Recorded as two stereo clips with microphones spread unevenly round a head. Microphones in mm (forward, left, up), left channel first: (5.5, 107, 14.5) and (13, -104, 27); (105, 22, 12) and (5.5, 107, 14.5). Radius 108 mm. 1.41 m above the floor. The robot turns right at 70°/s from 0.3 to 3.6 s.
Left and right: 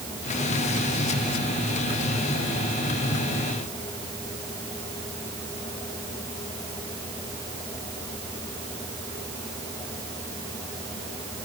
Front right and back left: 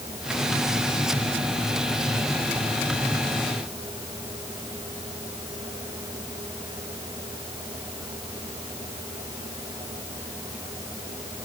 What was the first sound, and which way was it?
Only background noise.